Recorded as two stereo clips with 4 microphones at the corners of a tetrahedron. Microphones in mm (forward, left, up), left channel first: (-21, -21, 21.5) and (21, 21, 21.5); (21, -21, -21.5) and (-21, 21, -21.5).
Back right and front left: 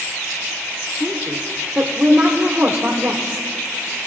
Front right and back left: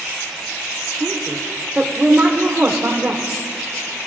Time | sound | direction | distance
1.0 | a woman speaking | 95° left | 1.3 m